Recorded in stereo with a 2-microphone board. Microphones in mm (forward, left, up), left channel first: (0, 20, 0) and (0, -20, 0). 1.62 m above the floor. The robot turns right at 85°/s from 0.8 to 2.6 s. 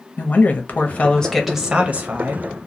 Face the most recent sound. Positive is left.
turn(degrees=-80)